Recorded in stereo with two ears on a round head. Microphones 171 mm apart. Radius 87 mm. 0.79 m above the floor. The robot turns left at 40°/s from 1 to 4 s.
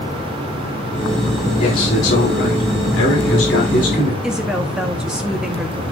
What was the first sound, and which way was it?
A man speaking, 135° left.